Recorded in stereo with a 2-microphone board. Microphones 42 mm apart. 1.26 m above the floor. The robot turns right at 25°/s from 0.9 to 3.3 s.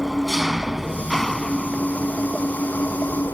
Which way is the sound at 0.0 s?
5° right.